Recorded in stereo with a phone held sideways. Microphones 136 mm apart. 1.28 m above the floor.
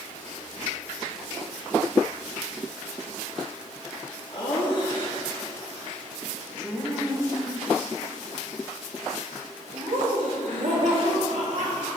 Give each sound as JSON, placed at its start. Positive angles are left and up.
{"t": 4.3, "sound": "laughter", "side_deg": 40, "distance_m": 2.0}